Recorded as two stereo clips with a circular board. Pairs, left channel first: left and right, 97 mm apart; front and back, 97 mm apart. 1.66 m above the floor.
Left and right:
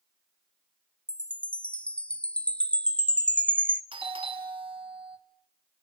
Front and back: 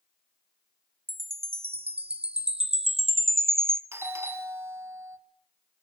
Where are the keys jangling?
No keys jangling in this recording.